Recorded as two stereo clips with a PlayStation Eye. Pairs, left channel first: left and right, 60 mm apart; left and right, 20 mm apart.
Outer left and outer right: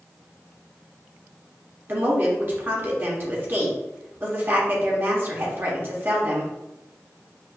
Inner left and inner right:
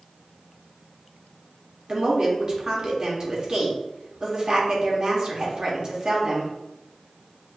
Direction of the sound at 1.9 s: 35° right (ahead or behind).